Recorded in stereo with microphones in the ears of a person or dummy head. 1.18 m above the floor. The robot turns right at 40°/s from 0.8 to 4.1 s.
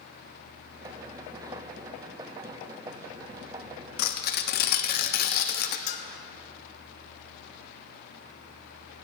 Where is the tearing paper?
55° left (ahead or behind), 1.0 m; by 5.8 s 50° left (ahead or behind), 1.0 m.